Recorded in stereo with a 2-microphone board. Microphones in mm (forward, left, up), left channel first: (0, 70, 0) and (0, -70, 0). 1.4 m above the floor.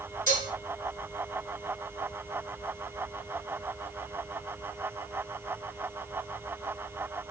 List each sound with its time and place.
0.3 s dishes clattering: 80° left, 3.5 m